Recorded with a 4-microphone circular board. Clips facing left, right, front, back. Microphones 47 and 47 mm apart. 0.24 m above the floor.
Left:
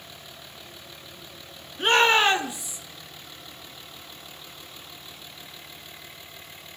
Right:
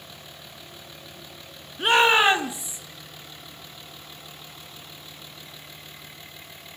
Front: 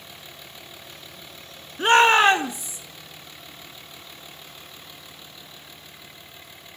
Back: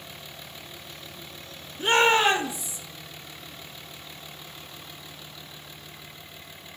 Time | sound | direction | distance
1.8 | a shout | straight ahead | 3 m